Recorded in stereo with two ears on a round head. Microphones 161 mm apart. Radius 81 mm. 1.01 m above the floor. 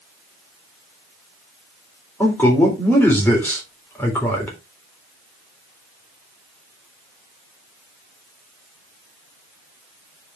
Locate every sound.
2.2 s a man speaking: 10° left (ahead or behind), 3.5 m